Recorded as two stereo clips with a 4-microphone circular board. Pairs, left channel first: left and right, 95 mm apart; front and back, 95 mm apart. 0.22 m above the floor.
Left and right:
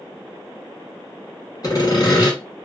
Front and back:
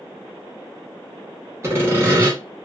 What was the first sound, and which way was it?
Sawing, 125° left.